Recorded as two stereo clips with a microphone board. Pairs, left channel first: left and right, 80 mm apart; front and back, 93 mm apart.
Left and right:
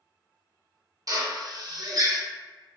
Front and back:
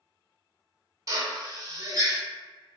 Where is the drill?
130° right, 0.5 m.